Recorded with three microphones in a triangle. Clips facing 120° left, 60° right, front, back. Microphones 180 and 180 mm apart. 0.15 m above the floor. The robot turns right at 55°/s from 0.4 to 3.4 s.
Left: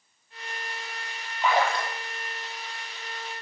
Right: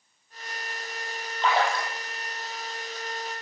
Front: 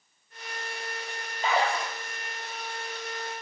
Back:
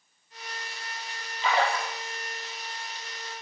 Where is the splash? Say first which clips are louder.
Left 1 dB, even; 35° left, 5 m; by 1.9 s 65° left, 5 m.